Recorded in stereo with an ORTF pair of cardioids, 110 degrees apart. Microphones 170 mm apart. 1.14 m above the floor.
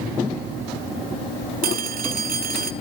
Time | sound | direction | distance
1.6 | a phone ringing | 65° right | 1.5 m